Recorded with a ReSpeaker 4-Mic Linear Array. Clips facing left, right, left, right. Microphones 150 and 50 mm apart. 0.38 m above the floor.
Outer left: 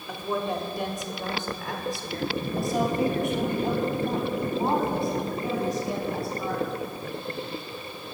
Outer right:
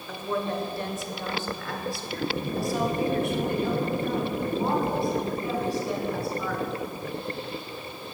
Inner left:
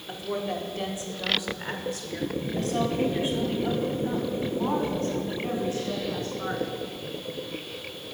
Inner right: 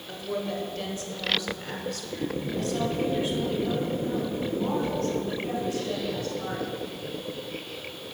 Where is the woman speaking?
10° left (ahead or behind), 1.2 m; by 6.6 s 20° left (ahead or behind), 4 m.